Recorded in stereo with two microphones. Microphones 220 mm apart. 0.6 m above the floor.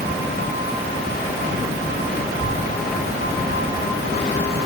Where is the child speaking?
65° right (ahead or behind), 7 m; by 4.6 s 75° right (ahead or behind), 5.5 m.